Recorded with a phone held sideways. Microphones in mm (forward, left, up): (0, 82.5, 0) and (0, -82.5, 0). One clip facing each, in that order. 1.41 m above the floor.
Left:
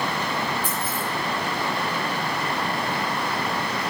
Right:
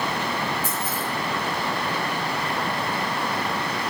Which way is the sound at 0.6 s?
40° right (ahead or behind).